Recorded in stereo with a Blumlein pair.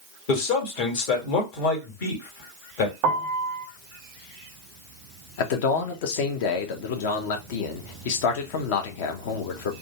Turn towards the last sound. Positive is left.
turn(degrees=50)